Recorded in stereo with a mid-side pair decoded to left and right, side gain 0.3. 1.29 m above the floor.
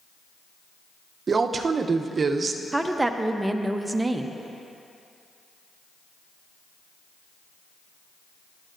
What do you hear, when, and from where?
1.3 s a woman speaking: 55° right, 0.7 m
2.7 s a woman speaking: 25° right, 0.8 m